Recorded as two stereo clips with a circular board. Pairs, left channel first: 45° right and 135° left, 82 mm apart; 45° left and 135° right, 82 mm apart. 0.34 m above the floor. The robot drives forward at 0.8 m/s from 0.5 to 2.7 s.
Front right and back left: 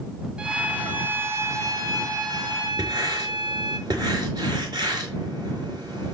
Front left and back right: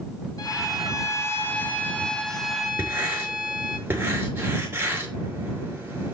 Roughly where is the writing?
Behind.